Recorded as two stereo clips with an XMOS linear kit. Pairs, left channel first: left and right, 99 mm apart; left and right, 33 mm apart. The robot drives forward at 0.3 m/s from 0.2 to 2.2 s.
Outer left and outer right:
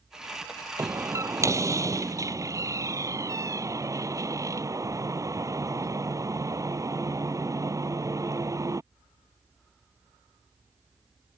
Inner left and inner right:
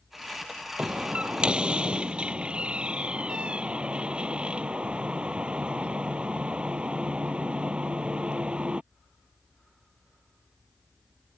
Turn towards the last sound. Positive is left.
turn(degrees=-35)  # may be behind; listen again after turning